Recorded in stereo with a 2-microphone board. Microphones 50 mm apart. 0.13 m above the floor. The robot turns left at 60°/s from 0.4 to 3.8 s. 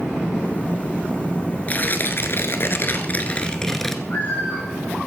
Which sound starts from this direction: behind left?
Tearing paper, at 1.7 s.